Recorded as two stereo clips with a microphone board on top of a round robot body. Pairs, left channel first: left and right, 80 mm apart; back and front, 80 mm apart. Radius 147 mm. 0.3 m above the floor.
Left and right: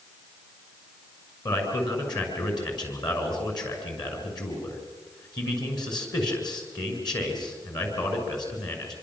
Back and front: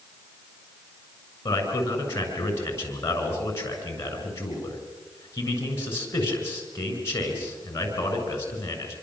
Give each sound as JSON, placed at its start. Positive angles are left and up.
{"t": 1.4, "sound": "a man speaking", "azimuth_deg": 120, "distance_m": 7.0}